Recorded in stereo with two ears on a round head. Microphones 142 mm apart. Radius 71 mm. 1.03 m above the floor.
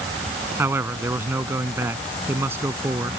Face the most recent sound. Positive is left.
turn(degrees=-15)  # may be behind; listen again after turning